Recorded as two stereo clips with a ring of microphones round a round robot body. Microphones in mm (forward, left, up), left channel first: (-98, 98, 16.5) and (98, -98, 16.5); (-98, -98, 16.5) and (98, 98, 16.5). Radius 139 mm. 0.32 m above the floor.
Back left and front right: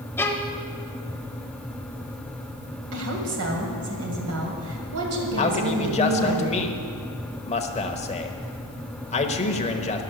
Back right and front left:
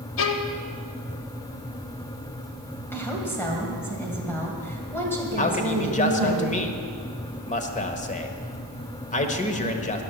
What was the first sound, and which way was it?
A violin, 145° right.